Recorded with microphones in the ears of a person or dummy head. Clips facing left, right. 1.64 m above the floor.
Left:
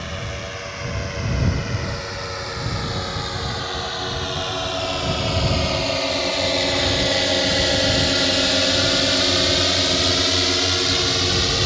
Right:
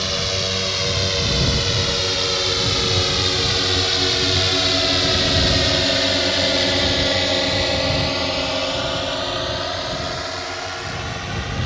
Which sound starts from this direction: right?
A drone, at 0.0 s.